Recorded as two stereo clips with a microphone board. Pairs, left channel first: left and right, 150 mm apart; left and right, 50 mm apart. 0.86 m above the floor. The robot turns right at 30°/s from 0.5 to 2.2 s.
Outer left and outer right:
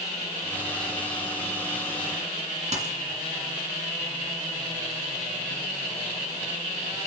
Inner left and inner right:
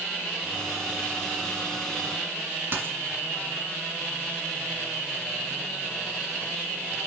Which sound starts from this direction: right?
A dropped coin, at 2.7 s.